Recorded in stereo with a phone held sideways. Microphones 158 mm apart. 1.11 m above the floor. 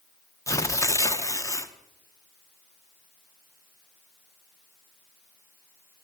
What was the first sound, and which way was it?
Tearing paper, 20° left (ahead or behind).